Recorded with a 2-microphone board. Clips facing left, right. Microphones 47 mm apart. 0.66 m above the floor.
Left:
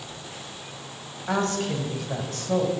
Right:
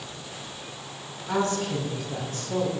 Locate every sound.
1.3 s a woman speaking: 80° left, 4 m